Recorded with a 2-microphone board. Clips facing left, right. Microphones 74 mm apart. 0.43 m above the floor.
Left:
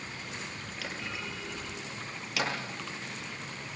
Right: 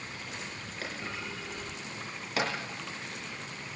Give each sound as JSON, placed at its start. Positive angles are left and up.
{"t": 0.8, "sound": "a clunk", "side_deg": -40, "distance_m": 7.5}